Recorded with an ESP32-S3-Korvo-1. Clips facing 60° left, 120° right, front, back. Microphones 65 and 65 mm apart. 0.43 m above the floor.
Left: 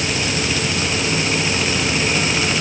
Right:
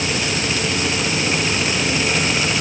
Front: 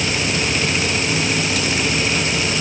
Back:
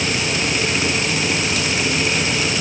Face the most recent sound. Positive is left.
No sound to turn to.